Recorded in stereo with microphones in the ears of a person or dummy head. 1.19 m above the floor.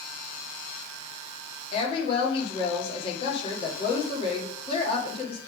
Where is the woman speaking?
40° left (ahead or behind), 1.9 m.